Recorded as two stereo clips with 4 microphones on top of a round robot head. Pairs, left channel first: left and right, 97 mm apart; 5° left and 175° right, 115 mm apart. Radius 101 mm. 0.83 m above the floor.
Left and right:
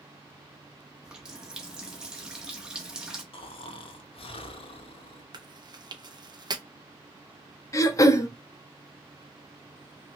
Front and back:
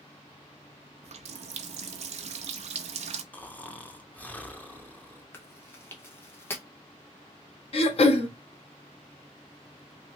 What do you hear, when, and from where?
1.0 s a running tap: 170° right, 0.6 m
3.3 s snoring: 80° left, 0.7 m
5.3 s chewing: 60° right, 0.9 m
7.7 s throat clearing: 35° left, 0.9 m